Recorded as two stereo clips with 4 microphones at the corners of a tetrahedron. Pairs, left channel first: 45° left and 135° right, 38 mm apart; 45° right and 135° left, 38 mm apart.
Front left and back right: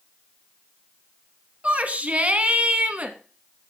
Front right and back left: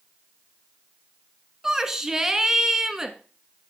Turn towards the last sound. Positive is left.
turn(degrees=-155)